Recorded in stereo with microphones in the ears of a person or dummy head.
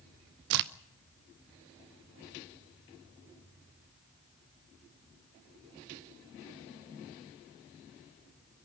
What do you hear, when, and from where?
0.5 s a crack: 60° right (ahead or behind), 0.5 m